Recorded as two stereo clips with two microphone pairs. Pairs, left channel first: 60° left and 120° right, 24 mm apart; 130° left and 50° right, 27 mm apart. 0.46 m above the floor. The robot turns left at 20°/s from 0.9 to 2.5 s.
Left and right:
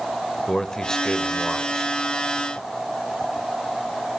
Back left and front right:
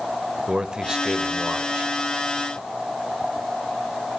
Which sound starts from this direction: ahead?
A man speaking, at 0.5 s.